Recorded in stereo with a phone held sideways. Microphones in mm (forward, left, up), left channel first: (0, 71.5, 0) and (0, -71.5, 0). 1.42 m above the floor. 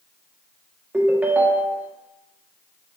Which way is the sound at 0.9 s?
15° right (ahead or behind).